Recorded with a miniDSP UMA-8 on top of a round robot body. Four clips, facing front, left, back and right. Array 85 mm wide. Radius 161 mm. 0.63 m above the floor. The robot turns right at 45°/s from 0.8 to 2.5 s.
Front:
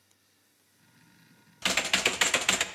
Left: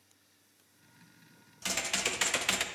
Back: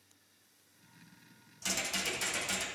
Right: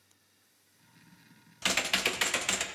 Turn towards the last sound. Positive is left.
turn(degrees=5)